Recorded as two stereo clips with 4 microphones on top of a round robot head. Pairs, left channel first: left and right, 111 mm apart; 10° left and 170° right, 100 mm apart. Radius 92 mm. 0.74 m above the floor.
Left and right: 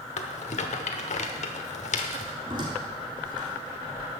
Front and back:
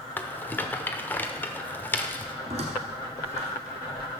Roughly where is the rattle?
Left.